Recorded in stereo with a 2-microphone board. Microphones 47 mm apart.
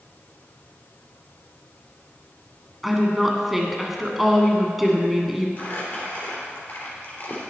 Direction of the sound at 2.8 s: 5° right (ahead or behind).